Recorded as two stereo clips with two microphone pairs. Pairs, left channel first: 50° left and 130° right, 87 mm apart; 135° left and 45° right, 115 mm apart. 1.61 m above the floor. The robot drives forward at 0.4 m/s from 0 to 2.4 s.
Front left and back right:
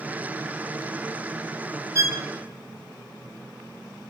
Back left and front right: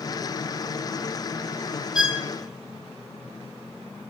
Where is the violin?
125° right, 1.0 m; by 2.2 s 130° right, 1.0 m.